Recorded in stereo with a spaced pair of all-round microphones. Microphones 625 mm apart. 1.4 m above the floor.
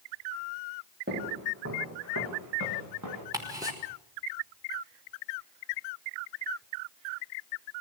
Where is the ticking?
5° right (ahead or behind), 5.5 m.